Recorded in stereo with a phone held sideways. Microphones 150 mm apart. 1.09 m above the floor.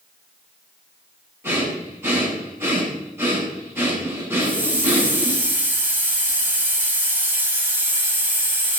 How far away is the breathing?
About 8.5 m.